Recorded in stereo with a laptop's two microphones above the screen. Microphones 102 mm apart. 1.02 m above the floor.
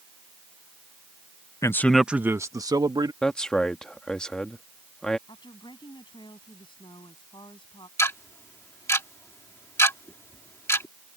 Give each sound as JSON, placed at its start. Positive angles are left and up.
{"t": 1.6, "sound": "a man speaking", "side_deg": 30}
{"t": 3.2, "sound": "a man speaking", "side_deg": 10}
{"t": 5.3, "sound": "a woman speaking", "side_deg": 50}
{"t": 8.0, "sound": "ticking", "side_deg": 30}